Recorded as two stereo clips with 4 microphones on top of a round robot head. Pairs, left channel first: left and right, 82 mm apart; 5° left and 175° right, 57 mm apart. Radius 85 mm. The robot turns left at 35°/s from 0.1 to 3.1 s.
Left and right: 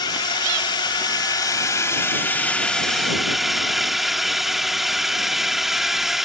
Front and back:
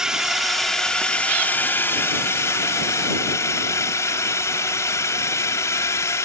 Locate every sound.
0.0 s a drone: 105° left; by 6.3 s 5° right